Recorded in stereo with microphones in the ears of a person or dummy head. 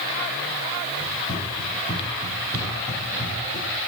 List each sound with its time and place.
1.0 s running footsteps: 25° left (ahead or behind), 2.5 m; by 3.7 s 10° left (ahead or behind), 5 m